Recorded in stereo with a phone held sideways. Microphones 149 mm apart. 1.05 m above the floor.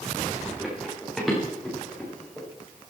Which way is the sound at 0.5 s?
5° right (ahead or behind).